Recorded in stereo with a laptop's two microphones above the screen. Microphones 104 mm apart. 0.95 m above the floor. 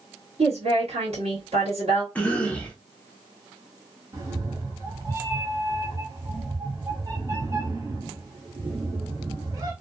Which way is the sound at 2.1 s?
10° left (ahead or behind).